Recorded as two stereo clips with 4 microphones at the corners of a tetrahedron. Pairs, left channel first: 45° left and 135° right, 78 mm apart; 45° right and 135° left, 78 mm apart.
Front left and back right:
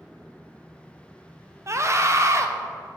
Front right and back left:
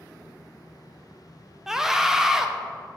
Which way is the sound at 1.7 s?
145° right.